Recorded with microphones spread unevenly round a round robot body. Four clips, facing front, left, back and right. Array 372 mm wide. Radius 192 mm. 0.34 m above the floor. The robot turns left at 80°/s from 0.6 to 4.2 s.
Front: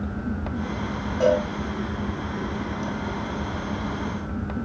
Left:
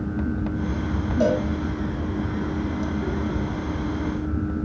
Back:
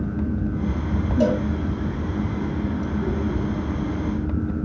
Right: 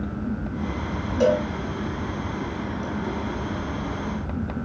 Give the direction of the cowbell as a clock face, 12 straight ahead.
6 o'clock.